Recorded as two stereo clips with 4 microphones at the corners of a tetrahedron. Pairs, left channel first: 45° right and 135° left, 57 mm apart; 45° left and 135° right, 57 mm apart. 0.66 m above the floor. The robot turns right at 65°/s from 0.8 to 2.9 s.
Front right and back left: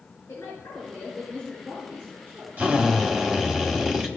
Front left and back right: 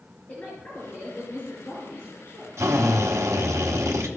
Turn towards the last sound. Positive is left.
turn(degrees=-145)